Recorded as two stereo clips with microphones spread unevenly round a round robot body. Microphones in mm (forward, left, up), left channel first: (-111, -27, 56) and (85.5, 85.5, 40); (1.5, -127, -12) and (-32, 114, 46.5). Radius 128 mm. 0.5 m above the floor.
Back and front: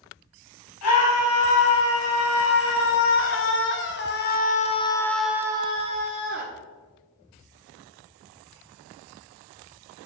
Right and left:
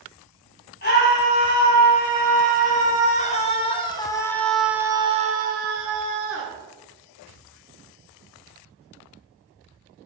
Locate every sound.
0.8 s a scream: 130° right, 4.5 m; by 6.5 s 60° left, 1.8 m